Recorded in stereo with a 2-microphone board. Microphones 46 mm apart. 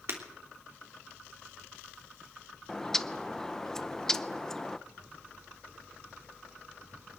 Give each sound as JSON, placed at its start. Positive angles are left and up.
{"t": 0.1, "sound": "breaking glass", "side_deg": -60, "distance_m": 3.0}
{"t": 2.7, "sound": "a bird", "side_deg": 10, "distance_m": 0.7}